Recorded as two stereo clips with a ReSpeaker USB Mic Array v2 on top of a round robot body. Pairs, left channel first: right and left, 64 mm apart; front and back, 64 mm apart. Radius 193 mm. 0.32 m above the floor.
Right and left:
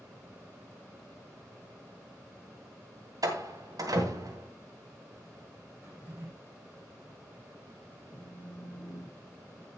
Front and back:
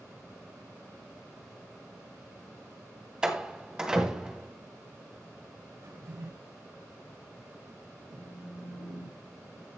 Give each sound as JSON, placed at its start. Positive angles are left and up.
{"t": 3.2, "sound": "a door slam", "azimuth_deg": 100, "distance_m": 3.0}
{"t": 5.8, "sound": "a drawer", "azimuth_deg": 155, "distance_m": 5.0}
{"t": 8.1, "sound": "a phone buzzing", "azimuth_deg": -140, "distance_m": 3.5}